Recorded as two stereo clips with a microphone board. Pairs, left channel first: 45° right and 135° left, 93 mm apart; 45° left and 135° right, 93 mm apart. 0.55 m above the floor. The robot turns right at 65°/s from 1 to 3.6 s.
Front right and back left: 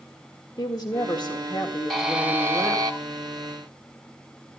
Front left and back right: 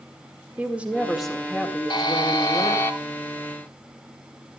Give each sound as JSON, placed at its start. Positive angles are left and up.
{"t": 0.6, "sound": "a woman speaking", "azimuth_deg": -65, "distance_m": 1.8}
{"t": 1.9, "sound": "a buzzer", "azimuth_deg": 45, "distance_m": 1.1}